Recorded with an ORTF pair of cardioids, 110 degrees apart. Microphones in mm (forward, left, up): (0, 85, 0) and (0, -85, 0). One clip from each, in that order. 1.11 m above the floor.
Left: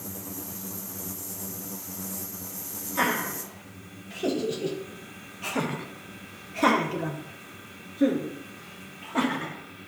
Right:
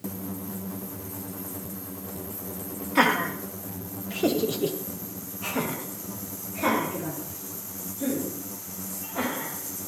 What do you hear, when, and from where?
3.0 s laughter: 55° right, 1.6 m; by 9.6 s 65° left, 2.5 m